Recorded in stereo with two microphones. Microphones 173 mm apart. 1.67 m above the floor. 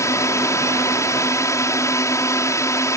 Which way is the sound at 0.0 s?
15° left (ahead or behind).